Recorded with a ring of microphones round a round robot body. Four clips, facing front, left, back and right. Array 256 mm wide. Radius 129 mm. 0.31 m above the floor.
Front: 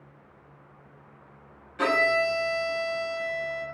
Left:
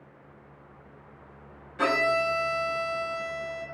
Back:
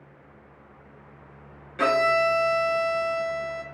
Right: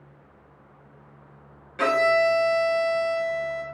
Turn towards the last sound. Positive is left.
turn(degrees=-145)